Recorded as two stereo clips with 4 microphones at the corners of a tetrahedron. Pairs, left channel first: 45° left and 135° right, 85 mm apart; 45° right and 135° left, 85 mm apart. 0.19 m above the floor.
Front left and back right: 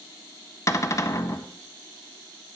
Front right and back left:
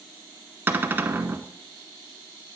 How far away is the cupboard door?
About 0.6 m.